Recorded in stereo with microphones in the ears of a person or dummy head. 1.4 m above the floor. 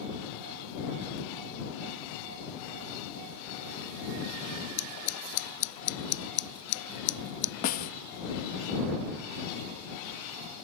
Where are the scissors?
70° left (ahead or behind).